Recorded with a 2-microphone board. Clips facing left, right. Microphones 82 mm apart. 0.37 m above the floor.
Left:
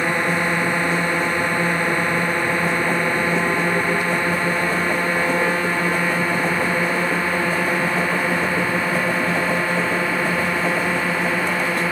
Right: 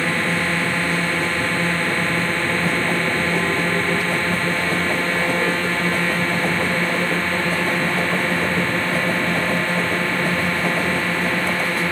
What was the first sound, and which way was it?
A drone, 15° left (ahead or behind).